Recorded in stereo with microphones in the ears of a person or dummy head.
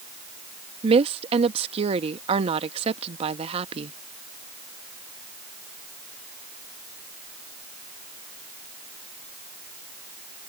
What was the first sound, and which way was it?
A woman speaking, 30° right (ahead or behind).